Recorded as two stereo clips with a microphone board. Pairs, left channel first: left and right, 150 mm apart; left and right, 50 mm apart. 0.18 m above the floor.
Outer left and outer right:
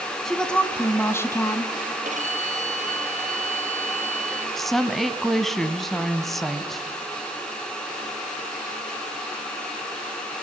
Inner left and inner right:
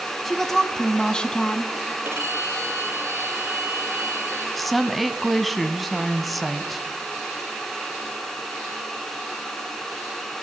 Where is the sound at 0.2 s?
Centre (ahead or behind), 1.1 m; by 1.7 s 20° left (ahead or behind), 1.6 m.